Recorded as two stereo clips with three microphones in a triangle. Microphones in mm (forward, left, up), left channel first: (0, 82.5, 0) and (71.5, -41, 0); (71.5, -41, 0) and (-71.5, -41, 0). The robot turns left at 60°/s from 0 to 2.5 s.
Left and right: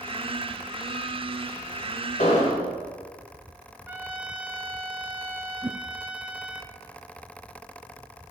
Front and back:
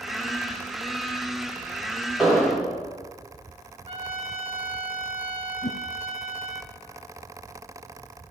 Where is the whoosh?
15° left, 1.1 m.